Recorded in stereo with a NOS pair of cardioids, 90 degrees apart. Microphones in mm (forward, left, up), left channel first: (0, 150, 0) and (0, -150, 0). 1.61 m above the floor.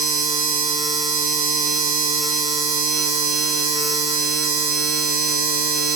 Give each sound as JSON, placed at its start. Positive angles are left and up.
{"t": 0.0, "sound": "a machine running", "azimuth_deg": -30, "distance_m": 1.2}